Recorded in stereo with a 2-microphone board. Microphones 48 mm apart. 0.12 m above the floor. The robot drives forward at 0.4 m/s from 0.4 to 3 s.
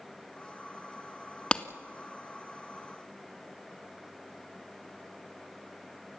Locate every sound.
1.5 s a clap: 20° left (ahead or behind), 0.9 m